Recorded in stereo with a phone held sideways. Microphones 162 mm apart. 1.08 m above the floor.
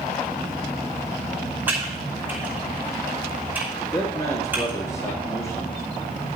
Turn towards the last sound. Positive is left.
turn(degrees=25)  # may be behind; listen again after turning